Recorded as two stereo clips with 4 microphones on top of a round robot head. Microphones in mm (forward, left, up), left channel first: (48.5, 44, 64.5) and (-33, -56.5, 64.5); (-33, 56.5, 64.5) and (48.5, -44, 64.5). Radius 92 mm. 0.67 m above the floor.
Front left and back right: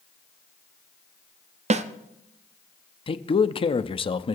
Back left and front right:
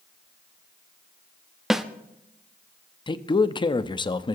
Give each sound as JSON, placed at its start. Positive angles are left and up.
{"t": 1.7, "sound": "a snare drum", "azimuth_deg": -140, "distance_m": 0.8}
{"t": 3.1, "sound": "a man speaking", "azimuth_deg": 85, "distance_m": 0.8}